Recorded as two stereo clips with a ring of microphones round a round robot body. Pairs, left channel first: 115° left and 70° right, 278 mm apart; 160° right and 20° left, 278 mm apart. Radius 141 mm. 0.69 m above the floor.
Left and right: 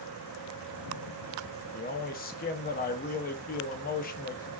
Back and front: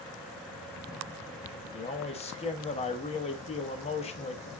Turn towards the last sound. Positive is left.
turn(degrees=150)